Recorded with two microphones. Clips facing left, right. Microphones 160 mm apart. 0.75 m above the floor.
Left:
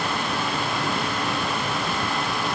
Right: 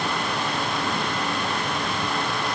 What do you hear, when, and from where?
Only background noise.